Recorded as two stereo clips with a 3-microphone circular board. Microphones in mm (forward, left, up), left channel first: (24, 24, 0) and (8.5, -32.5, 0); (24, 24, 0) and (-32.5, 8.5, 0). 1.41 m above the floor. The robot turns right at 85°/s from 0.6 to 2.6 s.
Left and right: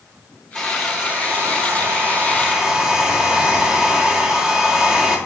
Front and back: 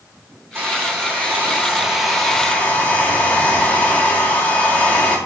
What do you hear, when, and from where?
0.6 s a hair dryer: 155° left, 1.0 m; by 5.2 s 35° right, 1.0 m